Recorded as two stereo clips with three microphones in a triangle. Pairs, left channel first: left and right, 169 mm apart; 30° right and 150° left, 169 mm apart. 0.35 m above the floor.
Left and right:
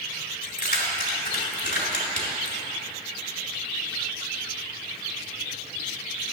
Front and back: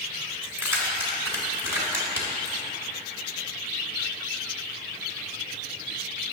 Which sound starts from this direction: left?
Keys jangling, at 0.4 s.